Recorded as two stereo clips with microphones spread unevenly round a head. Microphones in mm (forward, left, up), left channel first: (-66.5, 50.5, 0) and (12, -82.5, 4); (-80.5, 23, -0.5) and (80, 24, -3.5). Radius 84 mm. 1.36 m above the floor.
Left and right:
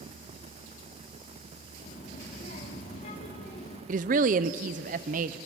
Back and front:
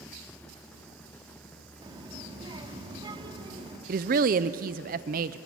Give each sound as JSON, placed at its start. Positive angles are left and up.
{"t": 1.8, "sound": "a child speaking", "azimuth_deg": 65, "distance_m": 2.5}
{"t": 3.9, "sound": "a woman speaking", "azimuth_deg": -25, "distance_m": 0.6}